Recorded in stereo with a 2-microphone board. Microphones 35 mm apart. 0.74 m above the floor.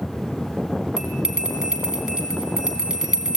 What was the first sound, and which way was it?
A bell, 20° right (ahead or behind).